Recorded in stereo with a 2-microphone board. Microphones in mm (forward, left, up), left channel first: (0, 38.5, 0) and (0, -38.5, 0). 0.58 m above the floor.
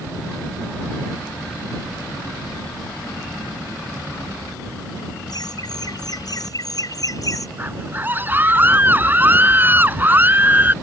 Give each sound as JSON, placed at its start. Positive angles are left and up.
{"t": 5.3, "sound": "laughter", "side_deg": 60}
{"t": 7.6, "sound": "a scream", "side_deg": -25}